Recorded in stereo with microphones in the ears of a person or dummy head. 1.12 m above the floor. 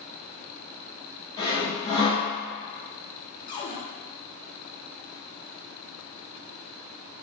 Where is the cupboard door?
20° left (ahead or behind), 0.5 m.